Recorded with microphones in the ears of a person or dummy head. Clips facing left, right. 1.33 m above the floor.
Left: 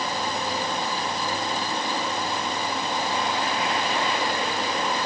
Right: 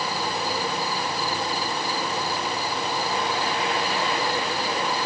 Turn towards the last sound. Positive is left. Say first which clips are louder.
# even
turn(degrees=0)  # may be behind; listen again after turning